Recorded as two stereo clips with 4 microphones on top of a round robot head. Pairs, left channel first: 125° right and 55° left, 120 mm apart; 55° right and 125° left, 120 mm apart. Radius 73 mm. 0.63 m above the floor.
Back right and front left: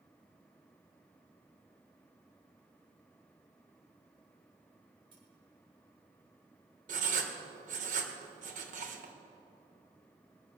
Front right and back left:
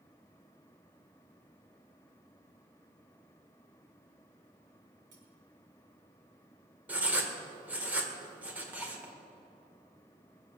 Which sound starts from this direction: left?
Cutlery clinking, at 5.1 s.